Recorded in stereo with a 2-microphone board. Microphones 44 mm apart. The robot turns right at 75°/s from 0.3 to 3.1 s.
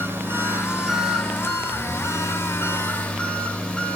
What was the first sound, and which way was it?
An engine running, 55° right.